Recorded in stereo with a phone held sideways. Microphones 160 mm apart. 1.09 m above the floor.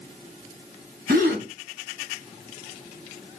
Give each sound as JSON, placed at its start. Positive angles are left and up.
{"t": 1.1, "sound": "a gasp", "side_deg": -70, "distance_m": 4.0}